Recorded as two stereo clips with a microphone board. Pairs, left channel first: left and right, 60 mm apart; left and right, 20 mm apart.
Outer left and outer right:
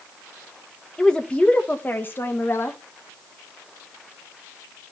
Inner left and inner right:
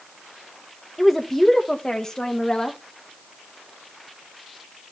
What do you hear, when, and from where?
1.0 s a woman speaking: 10° left (ahead or behind), 1.5 m; by 2.8 s 45° left (ahead or behind), 1.7 m